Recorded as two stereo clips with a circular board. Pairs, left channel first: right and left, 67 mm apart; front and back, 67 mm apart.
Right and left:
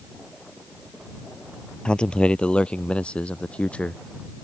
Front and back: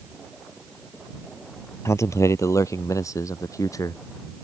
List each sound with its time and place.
1.9 s a man speaking: 15° right; by 4.0 s 20° right